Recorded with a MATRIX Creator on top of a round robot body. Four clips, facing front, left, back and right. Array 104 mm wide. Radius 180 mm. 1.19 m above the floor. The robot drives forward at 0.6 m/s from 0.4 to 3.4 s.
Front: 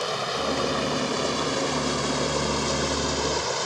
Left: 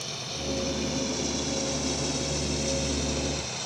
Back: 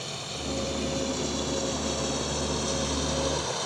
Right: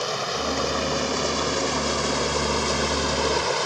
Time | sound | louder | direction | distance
0.0 | running water | right 10 dB, front 10 dB | 55° right | ?